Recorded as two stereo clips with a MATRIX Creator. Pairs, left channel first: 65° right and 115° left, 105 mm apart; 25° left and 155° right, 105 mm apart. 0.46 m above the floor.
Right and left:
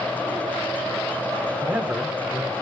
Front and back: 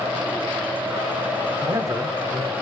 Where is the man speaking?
175° left, 1.3 m.